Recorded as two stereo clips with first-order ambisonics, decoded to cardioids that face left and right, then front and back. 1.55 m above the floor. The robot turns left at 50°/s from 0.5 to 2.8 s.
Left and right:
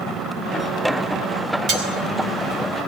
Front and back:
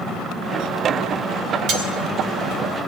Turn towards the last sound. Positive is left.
turn(degrees=165)